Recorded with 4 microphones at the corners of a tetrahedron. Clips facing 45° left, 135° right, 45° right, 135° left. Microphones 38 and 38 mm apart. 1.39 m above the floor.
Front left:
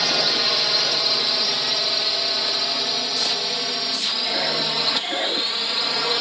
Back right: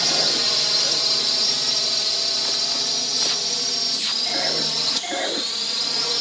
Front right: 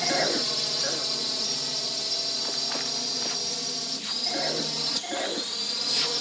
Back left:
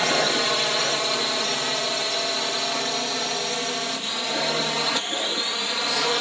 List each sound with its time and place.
0.0 s a drone: 115° left; by 6.2 s 100° left